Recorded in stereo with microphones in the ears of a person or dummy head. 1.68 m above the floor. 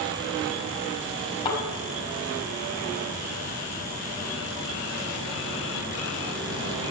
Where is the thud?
30° left (ahead or behind), 5.5 m.